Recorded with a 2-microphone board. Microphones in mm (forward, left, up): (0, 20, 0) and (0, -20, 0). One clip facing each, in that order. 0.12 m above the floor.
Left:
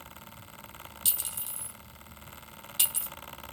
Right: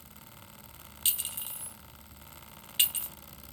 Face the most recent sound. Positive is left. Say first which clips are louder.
# right 4 dB
turn(degrees=-35)  # may be behind; listen again after turning